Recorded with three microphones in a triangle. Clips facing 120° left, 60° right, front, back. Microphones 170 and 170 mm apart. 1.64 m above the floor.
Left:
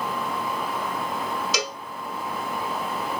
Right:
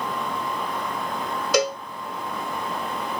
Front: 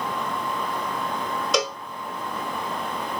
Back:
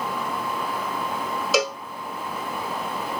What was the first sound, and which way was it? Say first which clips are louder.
A cowbell: right 9 dB, back 2 dB; 95° right.